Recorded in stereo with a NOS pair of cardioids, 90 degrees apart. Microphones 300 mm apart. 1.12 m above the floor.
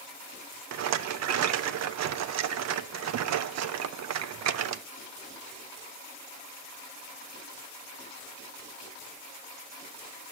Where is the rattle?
60° right, 0.7 m.